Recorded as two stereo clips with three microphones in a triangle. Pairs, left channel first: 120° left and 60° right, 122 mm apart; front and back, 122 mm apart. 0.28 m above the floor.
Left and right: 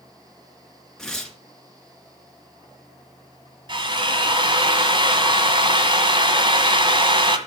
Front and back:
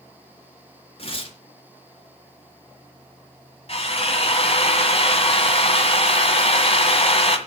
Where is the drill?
20° right, 1.8 m.